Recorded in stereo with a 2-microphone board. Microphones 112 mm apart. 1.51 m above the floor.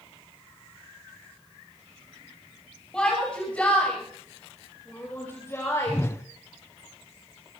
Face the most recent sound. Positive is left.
turn(degrees=25)  # may be behind; listen again after turning